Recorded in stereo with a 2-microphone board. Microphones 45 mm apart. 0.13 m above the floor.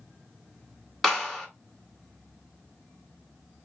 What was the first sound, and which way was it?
A clap, 5° left (ahead or behind).